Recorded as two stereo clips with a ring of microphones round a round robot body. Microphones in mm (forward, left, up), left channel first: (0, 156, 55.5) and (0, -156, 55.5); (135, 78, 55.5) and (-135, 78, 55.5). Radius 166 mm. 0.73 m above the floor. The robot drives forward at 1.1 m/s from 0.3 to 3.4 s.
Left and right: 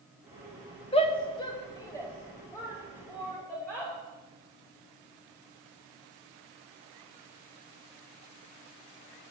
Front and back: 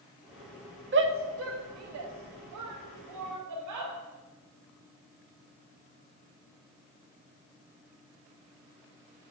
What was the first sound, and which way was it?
A shout, 155° left.